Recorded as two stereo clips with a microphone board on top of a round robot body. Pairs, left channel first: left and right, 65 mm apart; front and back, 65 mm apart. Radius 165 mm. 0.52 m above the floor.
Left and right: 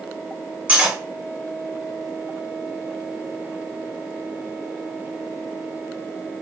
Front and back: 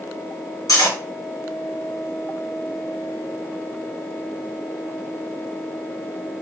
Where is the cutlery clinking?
20° right, 2.5 m.